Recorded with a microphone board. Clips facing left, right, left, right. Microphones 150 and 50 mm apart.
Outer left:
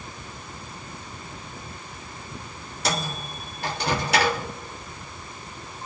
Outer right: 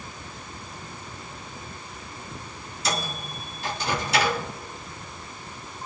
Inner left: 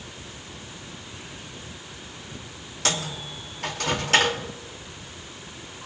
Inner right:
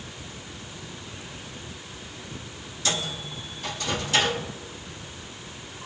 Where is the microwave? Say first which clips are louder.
Outer left 2 dB, inner left 1 dB; 65° left (ahead or behind), 2.0 m.